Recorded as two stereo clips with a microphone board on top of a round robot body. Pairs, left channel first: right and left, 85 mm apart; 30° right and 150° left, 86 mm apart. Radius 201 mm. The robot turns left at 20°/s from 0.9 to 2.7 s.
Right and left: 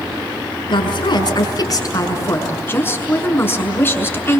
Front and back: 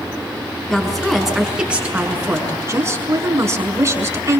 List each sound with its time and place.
0.7 s a woman speaking: 120° right, 6 m; by 4.4 s 155° right, 6 m